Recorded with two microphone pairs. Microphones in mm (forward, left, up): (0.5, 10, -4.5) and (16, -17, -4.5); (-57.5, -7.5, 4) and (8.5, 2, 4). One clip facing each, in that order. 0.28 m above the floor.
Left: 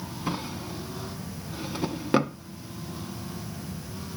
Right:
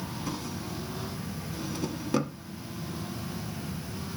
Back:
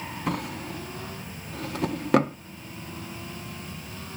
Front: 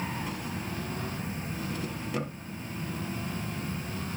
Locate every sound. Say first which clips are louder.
0.3 s a drawer: left 6 dB, back 5 dB; 170° left, 0.7 m